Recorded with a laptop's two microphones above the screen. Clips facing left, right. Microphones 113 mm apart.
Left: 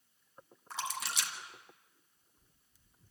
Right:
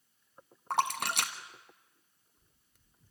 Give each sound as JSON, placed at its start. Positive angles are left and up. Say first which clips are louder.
{"t": 0.7, "sound": "a splash", "louder": "right 9 dB", "side_deg": -60, "distance_m": 1.3}